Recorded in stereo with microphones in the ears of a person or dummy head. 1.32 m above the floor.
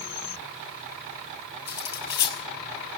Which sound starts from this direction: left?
Cutlery clinking, at 1.7 s.